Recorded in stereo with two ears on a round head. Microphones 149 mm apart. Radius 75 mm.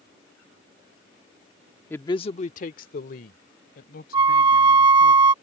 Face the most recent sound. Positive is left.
turn(degrees=-25)  # may be behind; listen again after turning